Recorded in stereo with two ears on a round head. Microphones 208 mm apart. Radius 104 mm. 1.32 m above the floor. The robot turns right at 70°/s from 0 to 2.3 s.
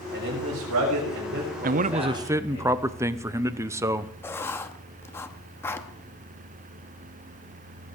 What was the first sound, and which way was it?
A man speaking, 130° right.